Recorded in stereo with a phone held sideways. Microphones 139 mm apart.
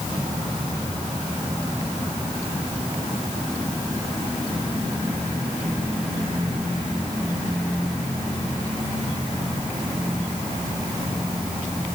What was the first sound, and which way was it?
Only background noise.